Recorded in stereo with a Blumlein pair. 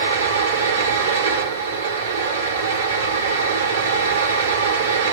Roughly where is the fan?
Right.